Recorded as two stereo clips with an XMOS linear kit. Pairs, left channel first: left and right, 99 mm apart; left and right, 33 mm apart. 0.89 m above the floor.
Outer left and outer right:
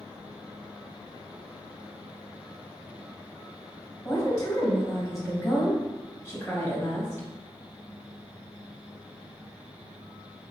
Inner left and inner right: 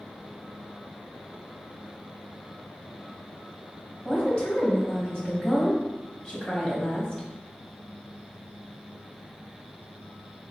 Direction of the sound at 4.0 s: 30° left (ahead or behind).